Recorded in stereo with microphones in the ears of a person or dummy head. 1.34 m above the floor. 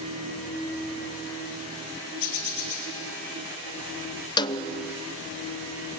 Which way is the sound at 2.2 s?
80° left.